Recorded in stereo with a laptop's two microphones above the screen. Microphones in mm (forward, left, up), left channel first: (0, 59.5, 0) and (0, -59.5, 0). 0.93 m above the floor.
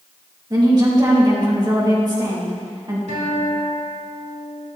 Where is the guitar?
85° right, 2 m.